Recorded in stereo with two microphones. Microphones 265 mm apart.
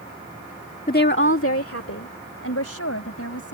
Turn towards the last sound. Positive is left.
turn(degrees=65)  # may be behind; listen again after turning